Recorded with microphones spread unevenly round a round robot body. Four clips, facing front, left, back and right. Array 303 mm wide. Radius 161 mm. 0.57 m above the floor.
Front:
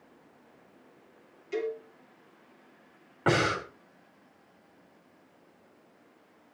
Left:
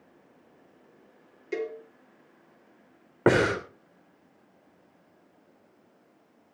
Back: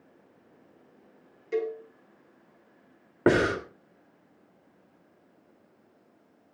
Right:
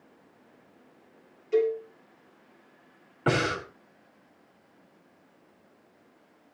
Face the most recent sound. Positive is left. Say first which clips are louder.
# left 5 dB, back 4 dB
turn(degrees=120)